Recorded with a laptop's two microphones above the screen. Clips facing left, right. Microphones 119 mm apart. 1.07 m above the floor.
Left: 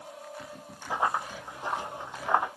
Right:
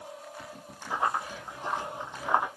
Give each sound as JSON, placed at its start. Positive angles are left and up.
{"t": 0.9, "sound": "running footsteps", "side_deg": 25, "distance_m": 1.9}